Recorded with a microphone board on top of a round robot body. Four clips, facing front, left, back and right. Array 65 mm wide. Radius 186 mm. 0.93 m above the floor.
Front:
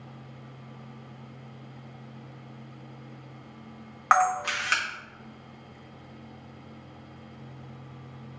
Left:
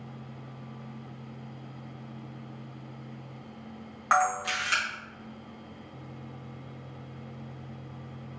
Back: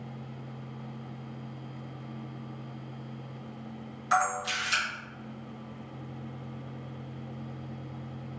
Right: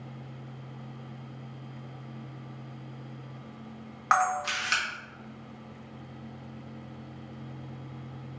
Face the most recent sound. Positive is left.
turn(degrees=-10)